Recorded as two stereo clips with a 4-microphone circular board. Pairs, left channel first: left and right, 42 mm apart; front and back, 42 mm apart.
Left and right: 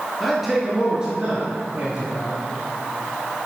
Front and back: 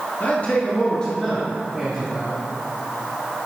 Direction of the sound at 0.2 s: 5° left.